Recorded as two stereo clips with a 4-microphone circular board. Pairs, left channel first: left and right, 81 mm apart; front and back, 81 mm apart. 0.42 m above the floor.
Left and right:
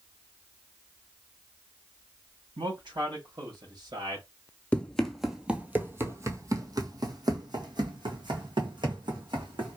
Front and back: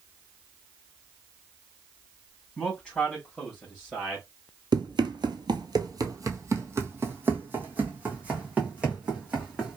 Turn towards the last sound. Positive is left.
turn(degrees=-100)